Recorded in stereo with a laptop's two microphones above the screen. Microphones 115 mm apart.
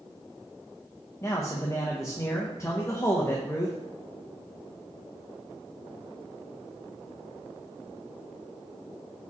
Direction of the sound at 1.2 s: 25° left (ahead or behind).